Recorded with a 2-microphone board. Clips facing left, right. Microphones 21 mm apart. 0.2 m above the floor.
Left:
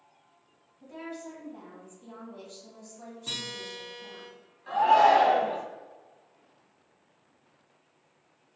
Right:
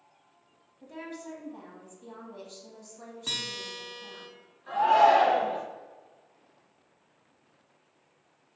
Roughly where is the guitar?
Right.